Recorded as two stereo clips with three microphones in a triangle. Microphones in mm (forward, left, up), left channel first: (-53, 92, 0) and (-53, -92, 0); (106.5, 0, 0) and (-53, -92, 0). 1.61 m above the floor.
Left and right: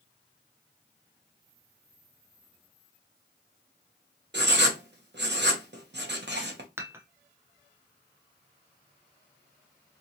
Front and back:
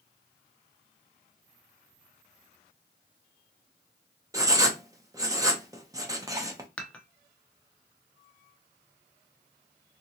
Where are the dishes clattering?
40° right, 0.6 m.